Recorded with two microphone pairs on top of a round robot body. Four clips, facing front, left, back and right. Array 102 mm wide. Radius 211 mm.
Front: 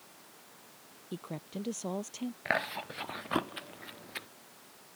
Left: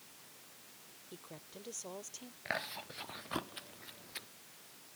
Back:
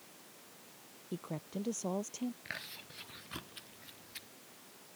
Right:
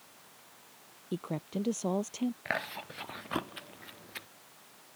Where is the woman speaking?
85° right.